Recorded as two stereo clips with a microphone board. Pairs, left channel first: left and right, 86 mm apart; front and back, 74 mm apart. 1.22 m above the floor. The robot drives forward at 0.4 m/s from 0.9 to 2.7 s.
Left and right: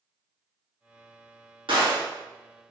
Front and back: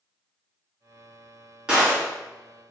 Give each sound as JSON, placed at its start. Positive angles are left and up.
{"t": 1.7, "sound": "a gunshot", "azimuth_deg": -100, "distance_m": 1.7}